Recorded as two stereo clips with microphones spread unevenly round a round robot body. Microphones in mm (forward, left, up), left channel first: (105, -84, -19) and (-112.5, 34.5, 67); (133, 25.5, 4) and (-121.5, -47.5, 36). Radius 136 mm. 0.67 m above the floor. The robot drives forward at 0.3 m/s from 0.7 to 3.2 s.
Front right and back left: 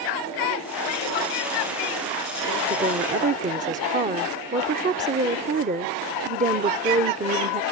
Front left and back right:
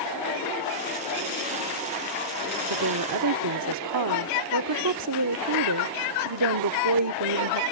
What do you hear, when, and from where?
2.7 s a woman speaking: 140° right